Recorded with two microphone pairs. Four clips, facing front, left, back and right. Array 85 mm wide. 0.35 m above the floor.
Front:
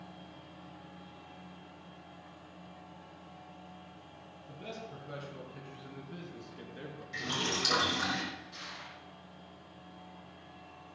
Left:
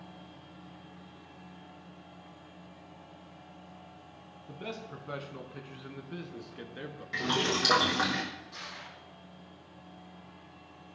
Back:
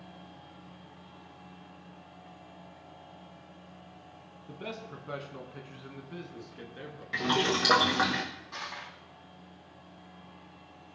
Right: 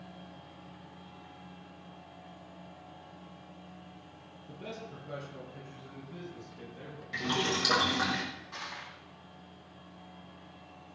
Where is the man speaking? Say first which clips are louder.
Left 2 dB, back 4 dB; 145° left, 2.5 m; by 7.0 s 100° left, 3.5 m.